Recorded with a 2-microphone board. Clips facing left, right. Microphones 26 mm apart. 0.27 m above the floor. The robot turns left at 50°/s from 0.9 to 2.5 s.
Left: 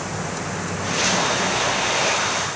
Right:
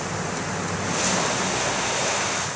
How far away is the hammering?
No hammering in this recording.